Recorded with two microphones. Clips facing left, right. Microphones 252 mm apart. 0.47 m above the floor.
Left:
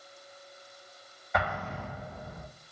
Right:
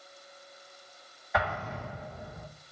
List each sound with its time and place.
1.3 s an explosion: centre (ahead or behind), 1.5 m